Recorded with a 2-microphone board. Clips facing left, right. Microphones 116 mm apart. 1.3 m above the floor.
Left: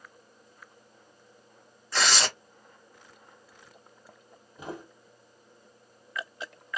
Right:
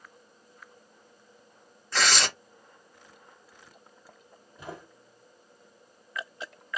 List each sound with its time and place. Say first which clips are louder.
1.9 s tearing paper: even; 5° left (ahead or behind), 1.6 m
4.6 s footsteps: left 3 dB; 15° left (ahead or behind), 2.0 m